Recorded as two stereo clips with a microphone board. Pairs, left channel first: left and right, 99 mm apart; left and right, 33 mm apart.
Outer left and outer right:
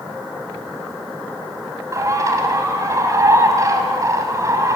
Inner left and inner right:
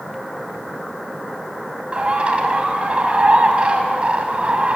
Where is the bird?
35° right (ahead or behind), 2.5 m.